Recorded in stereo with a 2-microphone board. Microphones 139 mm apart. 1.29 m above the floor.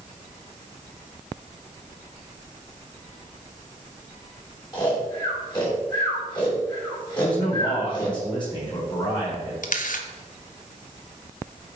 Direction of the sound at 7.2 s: 35° left (ahead or behind).